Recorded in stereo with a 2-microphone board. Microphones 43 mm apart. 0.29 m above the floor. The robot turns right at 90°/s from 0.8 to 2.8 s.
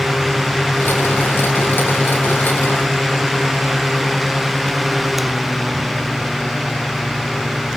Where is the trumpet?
No trumpet in this recording.